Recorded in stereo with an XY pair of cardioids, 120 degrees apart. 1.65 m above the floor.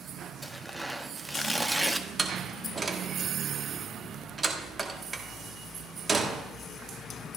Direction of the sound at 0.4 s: 5° right.